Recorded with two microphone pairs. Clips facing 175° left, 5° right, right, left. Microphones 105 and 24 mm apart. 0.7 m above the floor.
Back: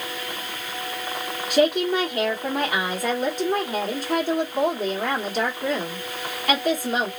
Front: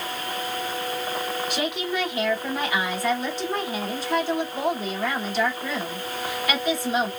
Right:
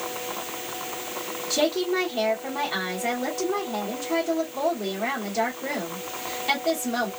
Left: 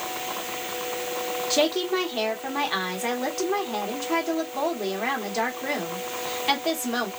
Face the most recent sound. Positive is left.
turn(degrees=140)